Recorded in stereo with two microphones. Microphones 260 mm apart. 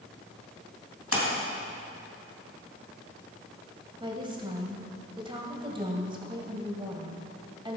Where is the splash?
65° left (ahead or behind), 3 m.